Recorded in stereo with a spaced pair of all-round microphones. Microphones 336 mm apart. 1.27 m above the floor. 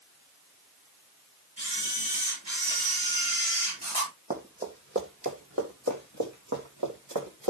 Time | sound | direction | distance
1.6 | a camera shutter | 50° right (ahead or behind) | 10 m
4.3 | running footsteps | 25° right (ahead or behind) | 3.5 m